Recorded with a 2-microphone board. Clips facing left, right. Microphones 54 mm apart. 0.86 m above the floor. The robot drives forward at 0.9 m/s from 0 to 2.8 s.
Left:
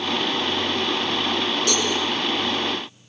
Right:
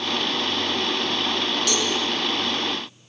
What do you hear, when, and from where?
1.7 s a cowbell: 35° left (ahead or behind), 9.5 m